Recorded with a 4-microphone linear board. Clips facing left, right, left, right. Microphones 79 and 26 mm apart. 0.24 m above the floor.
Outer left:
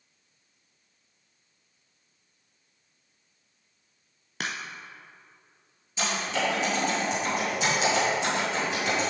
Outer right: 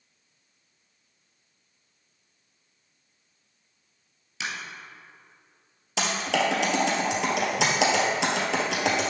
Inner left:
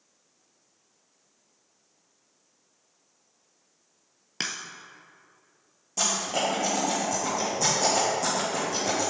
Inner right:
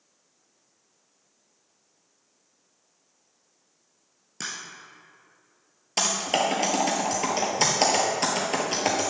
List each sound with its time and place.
4.4 s a crack: 55° left (ahead or behind), 0.8 m
6.0 s typing on a keyboard: 80° right, 1.6 m